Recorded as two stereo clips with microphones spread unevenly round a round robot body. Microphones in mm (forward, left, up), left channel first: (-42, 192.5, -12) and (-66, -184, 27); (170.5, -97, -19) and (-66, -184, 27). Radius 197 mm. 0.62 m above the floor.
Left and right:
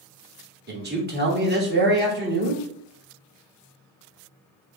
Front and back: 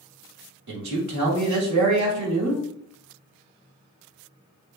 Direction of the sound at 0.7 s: 160° right.